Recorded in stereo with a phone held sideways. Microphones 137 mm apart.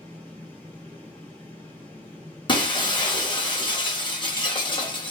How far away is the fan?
About 1.5 m.